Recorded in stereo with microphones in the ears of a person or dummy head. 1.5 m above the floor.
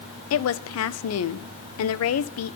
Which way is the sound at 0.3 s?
80° left.